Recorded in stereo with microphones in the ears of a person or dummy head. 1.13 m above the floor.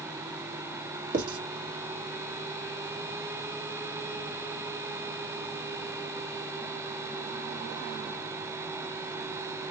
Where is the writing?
50° right (ahead or behind), 1.7 m.